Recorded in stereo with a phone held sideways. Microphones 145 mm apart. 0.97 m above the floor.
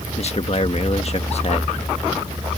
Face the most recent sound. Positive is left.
turn(degrees=45)  # may be behind; listen again after turning